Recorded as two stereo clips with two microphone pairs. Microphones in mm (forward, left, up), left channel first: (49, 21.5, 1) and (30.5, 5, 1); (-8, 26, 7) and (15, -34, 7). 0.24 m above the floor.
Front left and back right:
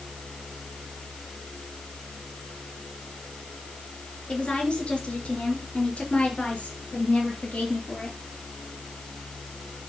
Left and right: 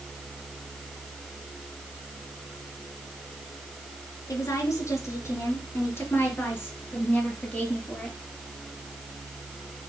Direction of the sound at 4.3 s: 75° left.